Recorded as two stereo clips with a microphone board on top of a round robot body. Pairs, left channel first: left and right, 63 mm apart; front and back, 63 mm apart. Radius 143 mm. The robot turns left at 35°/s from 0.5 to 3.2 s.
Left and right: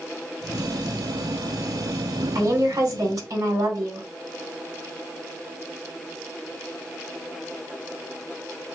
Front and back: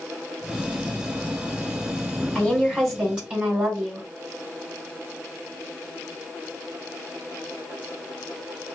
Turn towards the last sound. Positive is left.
turn(degrees=-110)